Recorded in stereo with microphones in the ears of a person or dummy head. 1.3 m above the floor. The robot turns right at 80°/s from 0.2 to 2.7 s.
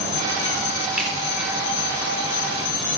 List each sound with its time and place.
1.0 s a finger snap: 10° right (ahead or behind), 4 m; by 1.1 s 5° left (ahead or behind), 4 m